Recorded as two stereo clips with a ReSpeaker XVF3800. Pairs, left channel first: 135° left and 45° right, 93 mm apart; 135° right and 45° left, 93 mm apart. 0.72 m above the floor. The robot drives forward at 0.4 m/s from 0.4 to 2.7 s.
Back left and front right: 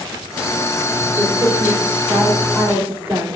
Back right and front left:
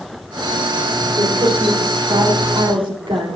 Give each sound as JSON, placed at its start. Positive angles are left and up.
{"t": 1.2, "sound": "a woman speaking", "azimuth_deg": 20, "distance_m": 3.0}